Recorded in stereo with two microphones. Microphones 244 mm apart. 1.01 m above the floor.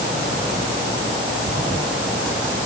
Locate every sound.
Only background noise.